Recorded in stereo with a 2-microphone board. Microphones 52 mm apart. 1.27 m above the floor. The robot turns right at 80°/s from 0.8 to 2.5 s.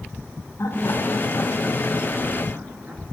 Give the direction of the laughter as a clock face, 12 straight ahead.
10 o'clock.